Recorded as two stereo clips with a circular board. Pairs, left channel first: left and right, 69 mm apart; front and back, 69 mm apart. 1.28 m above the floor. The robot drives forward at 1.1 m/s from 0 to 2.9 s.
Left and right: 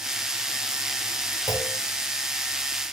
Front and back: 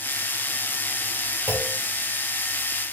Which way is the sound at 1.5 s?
120° left.